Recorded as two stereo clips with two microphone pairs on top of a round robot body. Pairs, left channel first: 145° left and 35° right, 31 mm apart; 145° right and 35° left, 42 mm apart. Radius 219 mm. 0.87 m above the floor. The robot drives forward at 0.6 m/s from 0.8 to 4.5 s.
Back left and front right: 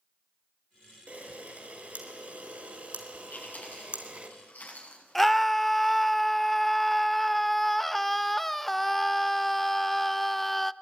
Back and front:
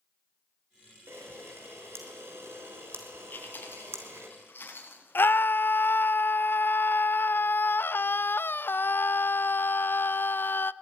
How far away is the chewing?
About 7.5 m.